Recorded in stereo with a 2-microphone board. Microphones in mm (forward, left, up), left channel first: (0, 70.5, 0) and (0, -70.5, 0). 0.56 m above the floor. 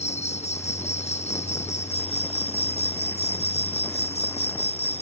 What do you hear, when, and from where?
0.0 s an insect: 50° left (ahead or behind)